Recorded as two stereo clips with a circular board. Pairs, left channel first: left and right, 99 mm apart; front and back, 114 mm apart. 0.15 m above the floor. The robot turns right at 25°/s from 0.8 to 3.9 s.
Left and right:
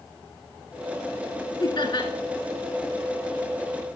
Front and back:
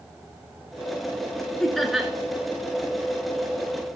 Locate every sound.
1.6 s laughter: 85° left, 1.7 m; by 2.1 s 95° left, 1.7 m